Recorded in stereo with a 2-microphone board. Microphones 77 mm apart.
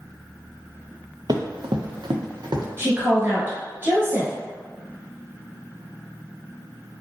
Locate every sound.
1.3 s running footsteps: 60° right (ahead or behind), 0.6 m; by 2.7 s 70° right (ahead or behind), 0.9 m
2.8 s a woman speaking: 30° right (ahead or behind), 1.5 m